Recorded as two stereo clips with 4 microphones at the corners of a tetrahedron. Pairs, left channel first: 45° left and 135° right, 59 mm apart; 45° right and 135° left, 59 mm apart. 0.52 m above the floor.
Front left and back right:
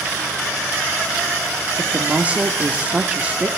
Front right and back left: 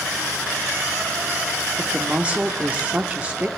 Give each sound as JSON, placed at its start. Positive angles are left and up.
{"t": 1.8, "sound": "a woman speaking", "azimuth_deg": 180, "distance_m": 0.7}